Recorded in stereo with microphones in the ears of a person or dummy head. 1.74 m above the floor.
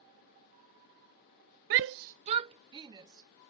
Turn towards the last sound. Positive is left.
turn(degrees=-20)  # may be behind; listen again after turning